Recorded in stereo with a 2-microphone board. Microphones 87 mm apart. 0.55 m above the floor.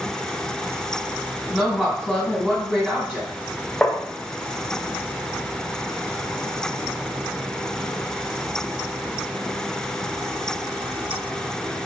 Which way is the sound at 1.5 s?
5° right (ahead or behind).